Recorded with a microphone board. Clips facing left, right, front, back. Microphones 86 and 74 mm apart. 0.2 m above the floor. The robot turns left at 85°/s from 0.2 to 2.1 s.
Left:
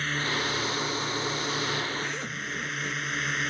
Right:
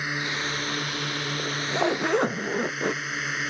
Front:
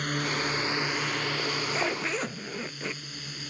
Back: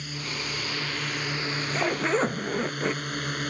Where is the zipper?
60° right; by 3.0 s 120° right.